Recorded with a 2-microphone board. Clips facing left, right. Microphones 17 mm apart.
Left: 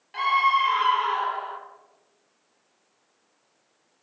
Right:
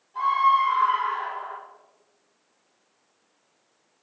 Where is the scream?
85° left, 3 m.